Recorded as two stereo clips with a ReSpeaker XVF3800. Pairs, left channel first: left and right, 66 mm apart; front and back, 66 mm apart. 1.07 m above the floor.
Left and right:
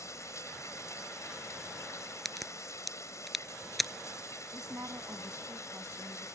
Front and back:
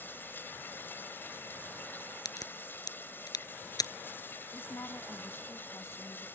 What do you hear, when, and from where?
0.0 s running water: 55° left
2.2 s a crack: straight ahead
4.5 s a woman speaking: 40° right